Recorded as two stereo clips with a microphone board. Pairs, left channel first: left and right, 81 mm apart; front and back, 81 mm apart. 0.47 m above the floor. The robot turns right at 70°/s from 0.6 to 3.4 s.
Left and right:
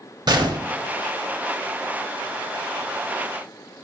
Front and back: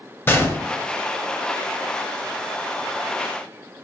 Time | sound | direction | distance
0.3 | a gunshot | 60° right | 0.7 m